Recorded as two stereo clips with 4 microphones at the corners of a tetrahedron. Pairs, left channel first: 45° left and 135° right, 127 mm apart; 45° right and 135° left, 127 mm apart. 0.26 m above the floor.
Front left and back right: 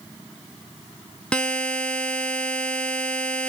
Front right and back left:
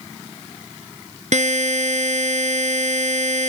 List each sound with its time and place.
1.3 s a buzzer: 125° left, 2.0 m